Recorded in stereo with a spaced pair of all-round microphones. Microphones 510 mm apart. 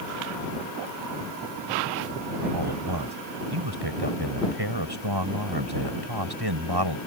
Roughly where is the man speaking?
Right.